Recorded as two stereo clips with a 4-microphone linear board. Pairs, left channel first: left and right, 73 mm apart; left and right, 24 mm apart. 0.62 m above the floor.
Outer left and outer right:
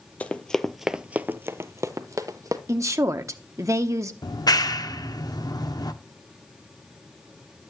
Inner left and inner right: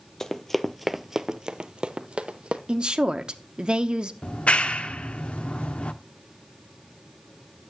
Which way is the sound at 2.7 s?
45° right (ahead or behind).